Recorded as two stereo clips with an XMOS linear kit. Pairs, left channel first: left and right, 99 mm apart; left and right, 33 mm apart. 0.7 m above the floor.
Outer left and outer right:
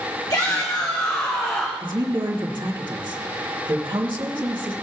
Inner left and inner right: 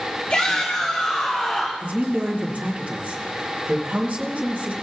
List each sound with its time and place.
0.3 s a shout: 40° left (ahead or behind), 1.3 m; by 1.7 s 35° left (ahead or behind), 2.5 m
1.8 s a woman speaking: 50° right (ahead or behind), 2 m